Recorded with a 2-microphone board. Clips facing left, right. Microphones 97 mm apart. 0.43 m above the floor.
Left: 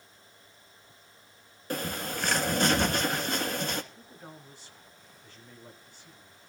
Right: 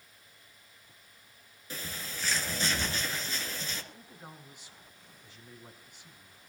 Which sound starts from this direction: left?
A bird, at 1.7 s.